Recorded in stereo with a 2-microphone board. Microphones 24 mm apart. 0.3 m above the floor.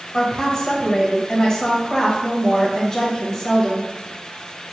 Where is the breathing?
I don't hear breathing.